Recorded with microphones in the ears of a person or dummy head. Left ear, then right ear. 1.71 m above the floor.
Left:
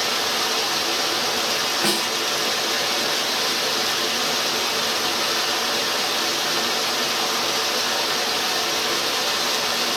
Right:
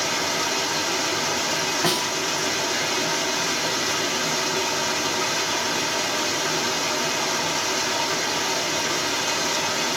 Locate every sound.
0.0 s running water: 40° left (ahead or behind), 0.8 m
1.8 s a snare drum: 40° left (ahead or behind), 1.7 m